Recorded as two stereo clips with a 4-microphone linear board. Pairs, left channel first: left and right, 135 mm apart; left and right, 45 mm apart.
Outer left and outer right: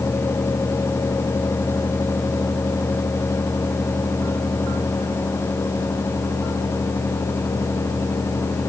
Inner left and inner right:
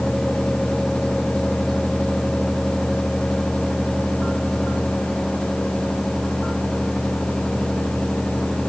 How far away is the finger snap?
I don't hear a finger snap.